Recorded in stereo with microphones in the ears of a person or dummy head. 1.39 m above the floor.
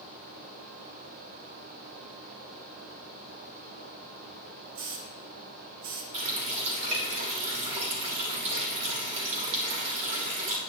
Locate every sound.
4.8 s a hiss: 60° right (ahead or behind), 1.3 m
6.1 s a running tap: 35° right (ahead or behind), 1.6 m